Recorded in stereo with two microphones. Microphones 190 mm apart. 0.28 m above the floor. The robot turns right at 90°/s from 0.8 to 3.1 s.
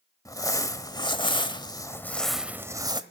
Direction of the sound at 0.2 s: 15° left (ahead or behind).